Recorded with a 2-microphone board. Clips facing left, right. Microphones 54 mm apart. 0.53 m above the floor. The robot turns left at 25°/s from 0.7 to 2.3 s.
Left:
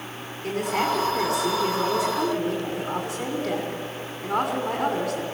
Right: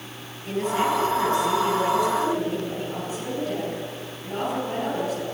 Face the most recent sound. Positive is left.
turn(degrees=70)